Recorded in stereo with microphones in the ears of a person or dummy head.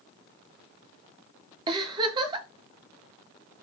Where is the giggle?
25° right (ahead or behind), 0.7 m.